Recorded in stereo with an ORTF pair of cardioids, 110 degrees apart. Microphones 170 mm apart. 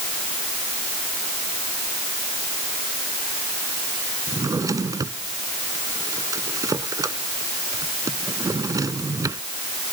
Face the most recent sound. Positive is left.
turn(degrees=-20)